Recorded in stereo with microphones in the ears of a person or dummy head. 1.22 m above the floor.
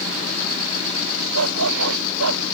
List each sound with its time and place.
1.3 s a dog barking: 85° right